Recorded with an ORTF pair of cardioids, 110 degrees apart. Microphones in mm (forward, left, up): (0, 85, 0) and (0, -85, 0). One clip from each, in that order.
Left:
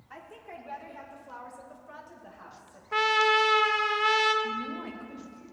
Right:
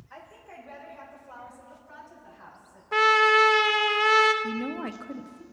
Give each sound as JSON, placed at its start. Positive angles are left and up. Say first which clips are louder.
{"t": 0.1, "sound": "a woman speaking", "louder": "left 1 dB", "azimuth_deg": 35, "distance_m": 3.5}
{"t": 2.9, "sound": "a trumpet", "louder": "right 4 dB", "azimuth_deg": -20, "distance_m": 0.8}
{"t": 4.4, "sound": "a woman speaking", "louder": "right 1 dB", "azimuth_deg": -45, "distance_m": 0.9}